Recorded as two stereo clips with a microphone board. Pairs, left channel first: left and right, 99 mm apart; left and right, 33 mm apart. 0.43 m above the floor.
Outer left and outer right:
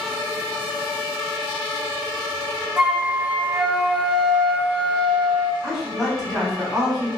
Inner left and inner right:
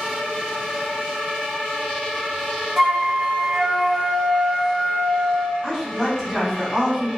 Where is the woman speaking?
Centre (ahead or behind), 1.4 m.